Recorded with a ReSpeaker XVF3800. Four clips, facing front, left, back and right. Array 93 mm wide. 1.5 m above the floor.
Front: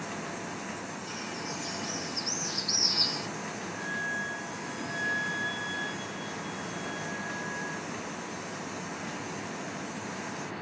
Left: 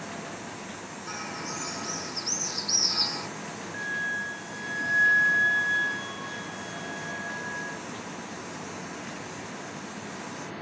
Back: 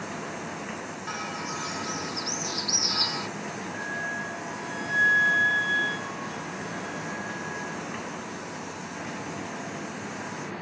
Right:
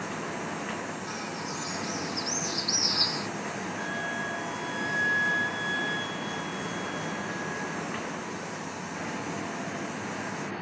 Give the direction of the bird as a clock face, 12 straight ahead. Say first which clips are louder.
Right 1 dB, back 4 dB; 7 o'clock.